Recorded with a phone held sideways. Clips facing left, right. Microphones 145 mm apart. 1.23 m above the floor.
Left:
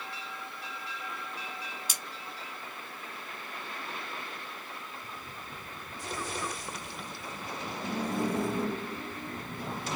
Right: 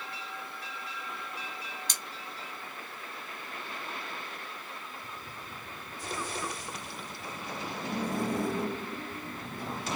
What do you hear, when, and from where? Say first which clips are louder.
1.9 s cutlery clinking: even; 5° left (ahead or behind), 0.5 m